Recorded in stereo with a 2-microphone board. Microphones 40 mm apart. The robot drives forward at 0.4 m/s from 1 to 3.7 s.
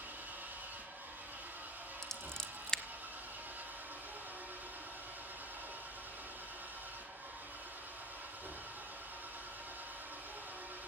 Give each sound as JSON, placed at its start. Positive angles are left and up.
{"t": 0.0, "sound": "an engine running", "side_deg": -60, "distance_m": 7.5}
{"t": 2.0, "sound": "scissors", "side_deg": 15, "distance_m": 1.1}